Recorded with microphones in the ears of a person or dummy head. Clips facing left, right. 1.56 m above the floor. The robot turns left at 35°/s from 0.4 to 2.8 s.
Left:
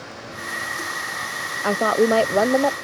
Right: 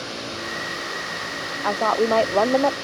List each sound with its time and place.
1.6 s a woman speaking: 40° left; by 2.8 s 5° left